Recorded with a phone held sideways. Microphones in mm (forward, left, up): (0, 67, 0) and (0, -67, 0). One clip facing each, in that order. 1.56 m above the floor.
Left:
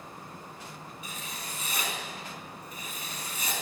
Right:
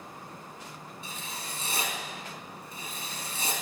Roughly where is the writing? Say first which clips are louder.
Right 2 dB; right.